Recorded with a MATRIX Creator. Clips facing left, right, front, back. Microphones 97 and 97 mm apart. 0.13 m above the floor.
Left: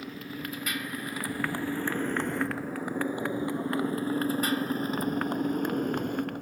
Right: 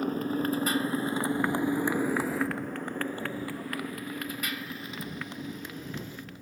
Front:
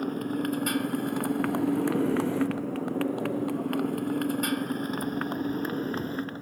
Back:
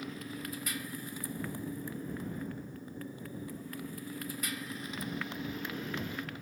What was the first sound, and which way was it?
A motorcycle, 45° right.